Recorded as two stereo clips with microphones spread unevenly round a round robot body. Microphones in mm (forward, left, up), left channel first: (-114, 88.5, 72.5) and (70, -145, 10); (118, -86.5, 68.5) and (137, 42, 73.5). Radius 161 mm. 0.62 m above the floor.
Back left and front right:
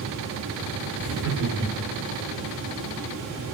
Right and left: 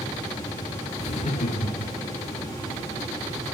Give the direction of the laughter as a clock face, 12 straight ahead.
3 o'clock.